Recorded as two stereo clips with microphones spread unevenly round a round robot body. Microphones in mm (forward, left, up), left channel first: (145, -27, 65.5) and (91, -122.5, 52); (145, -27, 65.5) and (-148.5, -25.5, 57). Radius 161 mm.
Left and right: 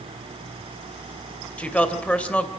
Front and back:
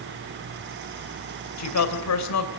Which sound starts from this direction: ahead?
A woman speaking, at 1.6 s.